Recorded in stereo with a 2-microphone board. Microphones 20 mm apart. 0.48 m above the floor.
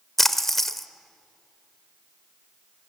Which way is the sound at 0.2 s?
15° left (ahead or behind).